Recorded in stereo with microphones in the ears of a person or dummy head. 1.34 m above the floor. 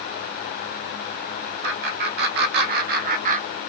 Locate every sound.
1.6 s laughter: 65° right (ahead or behind), 2 m; by 3.7 s 40° right (ahead or behind), 0.8 m